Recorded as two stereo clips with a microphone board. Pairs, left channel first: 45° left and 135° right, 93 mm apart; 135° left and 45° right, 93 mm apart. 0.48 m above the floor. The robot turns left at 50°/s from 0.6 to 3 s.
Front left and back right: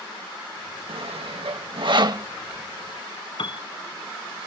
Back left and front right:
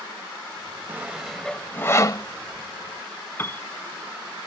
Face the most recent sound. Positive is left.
turn(degrees=70)